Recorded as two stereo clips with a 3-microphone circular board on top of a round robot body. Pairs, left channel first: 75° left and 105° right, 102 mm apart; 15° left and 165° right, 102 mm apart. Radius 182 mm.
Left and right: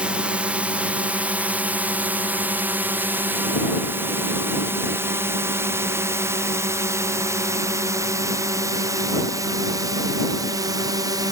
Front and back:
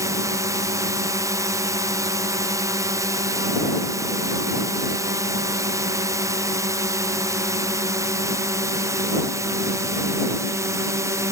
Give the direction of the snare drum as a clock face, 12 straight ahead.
I don't hear a snare drum.